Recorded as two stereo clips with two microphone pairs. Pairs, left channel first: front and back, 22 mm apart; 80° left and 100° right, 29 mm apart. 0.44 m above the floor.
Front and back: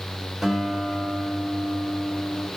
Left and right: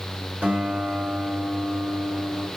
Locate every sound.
0.4 s a guitar: 110° right, 1.7 m